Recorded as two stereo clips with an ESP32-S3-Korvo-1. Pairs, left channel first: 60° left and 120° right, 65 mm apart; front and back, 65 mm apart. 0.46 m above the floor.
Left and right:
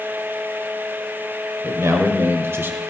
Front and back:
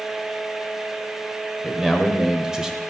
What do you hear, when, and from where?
1.6 s a man speaking: 95° right, 2 m; by 2.8 s 110° right, 1.2 m